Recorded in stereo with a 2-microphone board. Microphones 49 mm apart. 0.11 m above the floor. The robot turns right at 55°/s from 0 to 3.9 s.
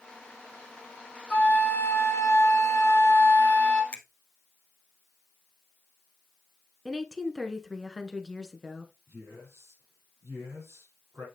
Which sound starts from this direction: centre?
A woman speaking, at 6.8 s.